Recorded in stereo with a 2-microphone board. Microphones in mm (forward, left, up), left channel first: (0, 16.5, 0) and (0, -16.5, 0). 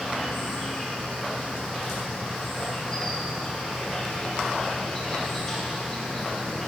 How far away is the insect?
About 1.1 m.